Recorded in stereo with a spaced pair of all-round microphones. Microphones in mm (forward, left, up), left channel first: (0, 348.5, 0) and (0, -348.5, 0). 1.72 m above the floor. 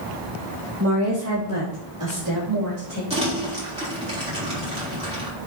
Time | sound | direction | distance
0.8 | a woman speaking | 20° right (ahead or behind) | 2 m
3.1 | crumpling | 10° right (ahead or behind) | 4 m